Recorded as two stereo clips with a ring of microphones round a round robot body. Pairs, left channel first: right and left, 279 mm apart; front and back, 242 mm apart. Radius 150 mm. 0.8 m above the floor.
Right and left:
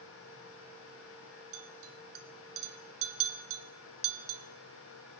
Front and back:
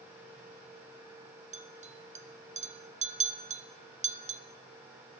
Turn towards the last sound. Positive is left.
turn(degrees=120)